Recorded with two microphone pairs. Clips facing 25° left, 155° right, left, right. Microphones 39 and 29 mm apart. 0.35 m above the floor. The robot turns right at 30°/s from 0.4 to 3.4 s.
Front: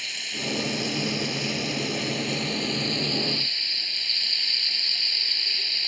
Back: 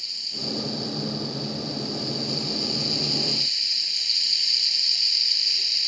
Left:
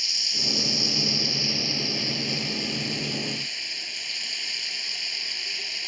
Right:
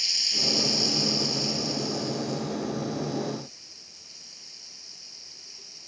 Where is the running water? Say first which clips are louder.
Front 4 dB, even; straight ahead; by 5.9 s 90° left.